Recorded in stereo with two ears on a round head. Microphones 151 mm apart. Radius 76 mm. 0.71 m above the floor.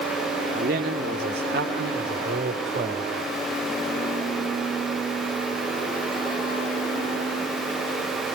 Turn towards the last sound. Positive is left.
turn(degrees=-65)  # may be behind; listen again after turning